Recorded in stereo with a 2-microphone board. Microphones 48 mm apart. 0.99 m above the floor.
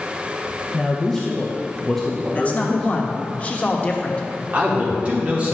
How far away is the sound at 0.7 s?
About 0.8 m.